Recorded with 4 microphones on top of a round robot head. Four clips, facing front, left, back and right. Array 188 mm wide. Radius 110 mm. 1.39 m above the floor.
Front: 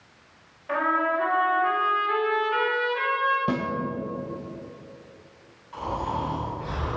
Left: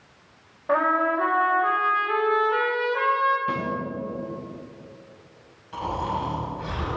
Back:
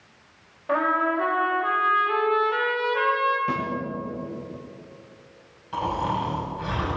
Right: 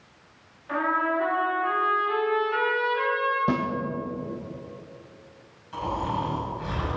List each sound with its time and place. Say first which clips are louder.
0.7 s a trumpet: left 4 dB, back 2 dB; 120° left, 3.5 m
3.5 s a snare drum: right 2 dB, even; 60° right, 1.8 m
5.7 s snoring: left 1 dB, back 3 dB; 170° left, 6 m